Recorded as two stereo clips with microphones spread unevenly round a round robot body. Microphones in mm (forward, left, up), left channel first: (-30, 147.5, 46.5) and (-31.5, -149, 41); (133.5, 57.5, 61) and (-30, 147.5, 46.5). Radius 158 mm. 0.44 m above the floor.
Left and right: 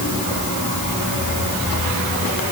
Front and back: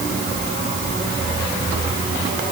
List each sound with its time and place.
Only background noise.